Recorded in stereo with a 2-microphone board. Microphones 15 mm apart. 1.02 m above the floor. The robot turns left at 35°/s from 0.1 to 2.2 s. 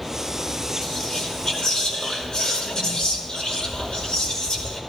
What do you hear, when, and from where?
0.8 s whispering: 125° left, 4.5 m; by 4.8 s 75° left, 4.5 m